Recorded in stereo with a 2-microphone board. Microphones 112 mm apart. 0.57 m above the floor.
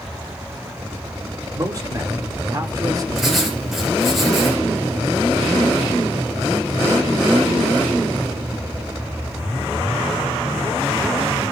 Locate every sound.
1.5 s a man speaking: 30° right (ahead or behind), 1.5 m
3.1 s writing: centre (ahead or behind), 3.5 m